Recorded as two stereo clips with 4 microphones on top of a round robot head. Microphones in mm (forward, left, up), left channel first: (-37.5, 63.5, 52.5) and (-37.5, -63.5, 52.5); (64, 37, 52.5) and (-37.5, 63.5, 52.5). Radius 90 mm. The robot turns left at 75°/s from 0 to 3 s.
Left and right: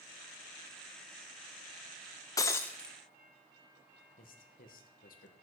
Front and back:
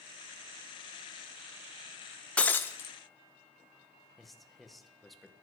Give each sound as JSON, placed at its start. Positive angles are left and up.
{"t": 2.4, "sound": "breaking glass", "azimuth_deg": 50, "distance_m": 0.6}
{"t": 4.2, "sound": "a man speaking", "azimuth_deg": 75, "distance_m": 1.7}